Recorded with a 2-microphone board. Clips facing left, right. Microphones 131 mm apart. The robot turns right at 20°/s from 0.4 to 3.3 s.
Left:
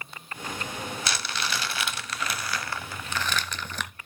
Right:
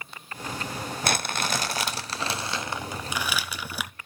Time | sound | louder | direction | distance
1.0 | crumpling | right 8 dB | 55° right | 0.7 m